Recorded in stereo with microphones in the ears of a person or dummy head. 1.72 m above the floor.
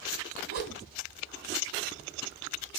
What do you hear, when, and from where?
0.5 s a whoosh: 50° right (ahead or behind), 2.5 m